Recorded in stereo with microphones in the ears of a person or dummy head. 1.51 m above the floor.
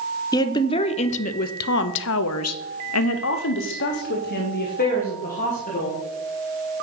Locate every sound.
0.3 s a woman speaking: 15° left (ahead or behind), 1.1 m; by 6.0 s 40° left (ahead or behind), 2 m